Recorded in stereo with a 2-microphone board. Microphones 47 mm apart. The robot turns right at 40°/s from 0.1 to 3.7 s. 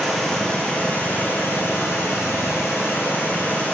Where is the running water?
Straight ahead, 1.9 m; by 3.8 s 145° left, 1.9 m.